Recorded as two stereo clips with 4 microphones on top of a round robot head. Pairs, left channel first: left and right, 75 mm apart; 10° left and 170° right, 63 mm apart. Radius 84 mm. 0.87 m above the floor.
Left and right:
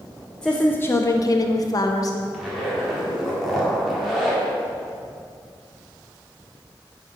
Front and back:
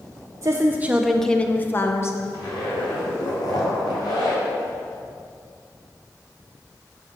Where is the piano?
No piano in this recording.